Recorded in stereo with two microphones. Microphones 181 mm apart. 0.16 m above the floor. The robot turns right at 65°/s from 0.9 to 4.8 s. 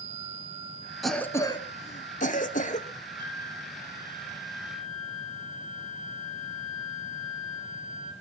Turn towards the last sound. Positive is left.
turn(degrees=0)